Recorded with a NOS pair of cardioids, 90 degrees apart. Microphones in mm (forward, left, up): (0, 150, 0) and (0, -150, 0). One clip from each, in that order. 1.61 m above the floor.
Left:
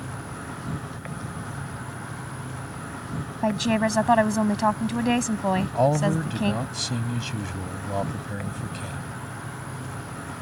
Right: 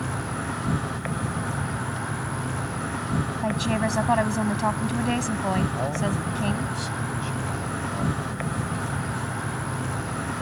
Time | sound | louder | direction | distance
0.0 | an insect | right 6 dB | 30° right | ?
3.4 | a woman speaking | left 4 dB | 25° left | ?
5.8 | a man speaking | left 5 dB | 60° left | ?